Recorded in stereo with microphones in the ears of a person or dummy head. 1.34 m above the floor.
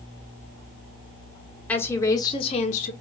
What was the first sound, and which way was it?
A woman speaking, 10° left (ahead or behind).